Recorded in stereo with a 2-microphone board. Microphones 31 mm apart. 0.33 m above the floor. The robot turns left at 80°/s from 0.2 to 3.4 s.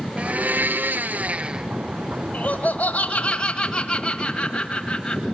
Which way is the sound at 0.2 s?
45° right.